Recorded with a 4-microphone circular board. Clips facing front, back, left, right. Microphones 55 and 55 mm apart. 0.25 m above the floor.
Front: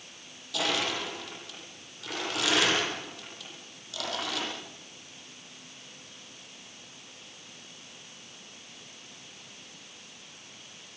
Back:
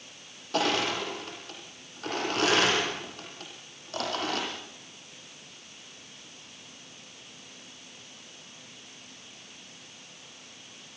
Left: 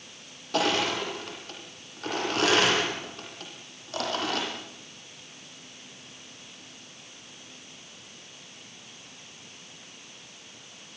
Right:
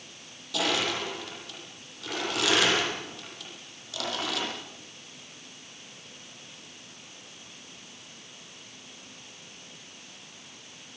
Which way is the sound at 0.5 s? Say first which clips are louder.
Back 3 dB, left 3 dB; 135° left.